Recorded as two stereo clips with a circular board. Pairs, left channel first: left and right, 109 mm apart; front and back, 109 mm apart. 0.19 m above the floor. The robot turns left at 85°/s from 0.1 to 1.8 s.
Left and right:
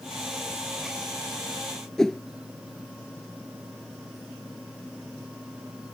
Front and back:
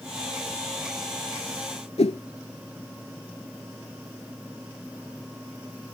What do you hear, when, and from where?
2.0 s a whoosh: 5° left